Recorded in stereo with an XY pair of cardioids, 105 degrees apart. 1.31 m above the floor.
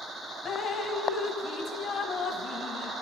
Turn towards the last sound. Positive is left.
turn(degrees=60)